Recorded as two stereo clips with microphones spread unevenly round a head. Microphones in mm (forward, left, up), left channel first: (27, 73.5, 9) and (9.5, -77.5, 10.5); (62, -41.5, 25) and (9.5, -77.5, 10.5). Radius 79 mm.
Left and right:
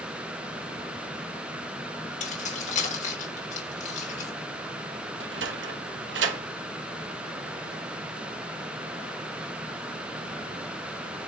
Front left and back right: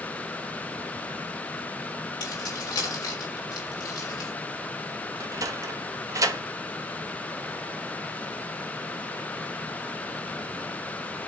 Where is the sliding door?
110° right, 1.3 m.